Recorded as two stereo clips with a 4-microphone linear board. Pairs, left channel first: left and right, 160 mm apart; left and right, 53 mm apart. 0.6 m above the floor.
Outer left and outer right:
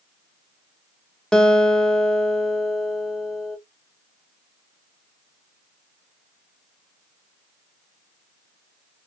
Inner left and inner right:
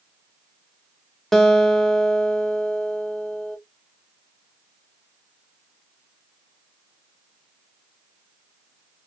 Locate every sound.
1.3 s a guitar: 5° left (ahead or behind), 0.6 m